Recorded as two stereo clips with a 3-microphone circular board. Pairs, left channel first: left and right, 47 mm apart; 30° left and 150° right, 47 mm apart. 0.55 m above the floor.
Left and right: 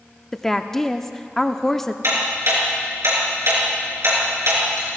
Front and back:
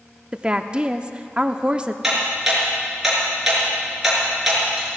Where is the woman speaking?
165° left, 0.7 m.